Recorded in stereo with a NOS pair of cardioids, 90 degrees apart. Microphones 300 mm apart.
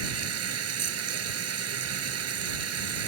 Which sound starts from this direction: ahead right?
Running water, at 0.0 s.